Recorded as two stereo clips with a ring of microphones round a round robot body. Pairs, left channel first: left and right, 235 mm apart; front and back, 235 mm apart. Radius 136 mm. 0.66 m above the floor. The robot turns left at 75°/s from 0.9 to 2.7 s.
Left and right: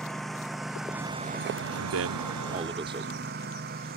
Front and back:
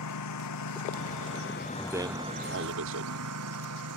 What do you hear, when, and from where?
0.0 s a lawn mower: straight ahead; by 4.0 s 150° right
1.8 s a man speaking: 85° right; by 3.4 s 160° right